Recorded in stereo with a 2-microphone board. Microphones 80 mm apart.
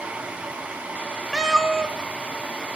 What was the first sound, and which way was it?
A cat meowing, 5° right (ahead or behind).